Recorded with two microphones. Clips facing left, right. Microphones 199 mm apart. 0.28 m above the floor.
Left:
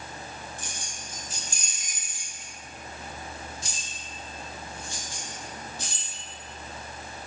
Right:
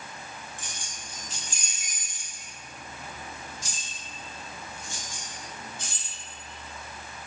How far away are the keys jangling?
About 1.6 m.